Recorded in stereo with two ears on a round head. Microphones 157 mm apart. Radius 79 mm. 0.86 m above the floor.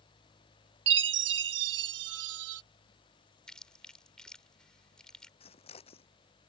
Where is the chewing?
5° left (ahead or behind).